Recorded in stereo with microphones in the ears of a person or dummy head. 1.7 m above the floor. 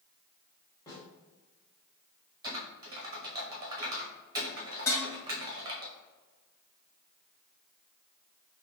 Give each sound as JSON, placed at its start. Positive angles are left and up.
{"t": 0.9, "sound": "a snare drum", "side_deg": 20, "distance_m": 1.7}
{"t": 2.4, "sound": "typing on a keyboard", "side_deg": -20, "distance_m": 0.7}
{"t": 4.9, "sound": "dishes clattering", "side_deg": 20, "distance_m": 1.0}